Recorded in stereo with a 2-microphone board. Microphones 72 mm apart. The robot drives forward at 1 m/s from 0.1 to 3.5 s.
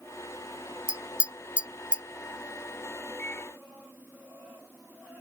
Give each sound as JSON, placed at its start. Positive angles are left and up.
{"t": 0.9, "sound": "tapping", "side_deg": -15}
{"t": 3.2, "sound": "a microwave", "side_deg": 25}